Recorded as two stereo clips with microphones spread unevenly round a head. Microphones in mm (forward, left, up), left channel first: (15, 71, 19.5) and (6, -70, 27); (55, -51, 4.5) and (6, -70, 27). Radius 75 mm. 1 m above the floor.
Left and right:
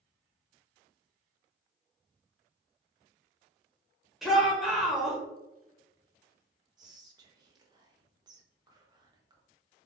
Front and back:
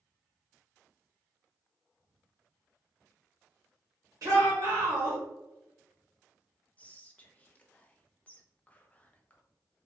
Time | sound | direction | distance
4.2 | a shout | 170° left | 0.7 m
6.8 | whispering | 30° right | 0.8 m